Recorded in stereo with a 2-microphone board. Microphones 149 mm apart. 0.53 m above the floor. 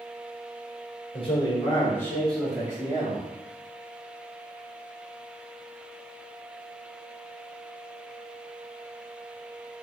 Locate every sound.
1.1 s a man speaking: 40° left (ahead or behind), 1.6 m; by 3.3 s 35° right (ahead or behind), 1.2 m